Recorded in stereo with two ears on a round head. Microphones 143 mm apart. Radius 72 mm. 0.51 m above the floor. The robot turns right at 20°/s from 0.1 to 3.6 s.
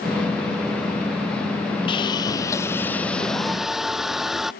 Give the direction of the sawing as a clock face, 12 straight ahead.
7 o'clock.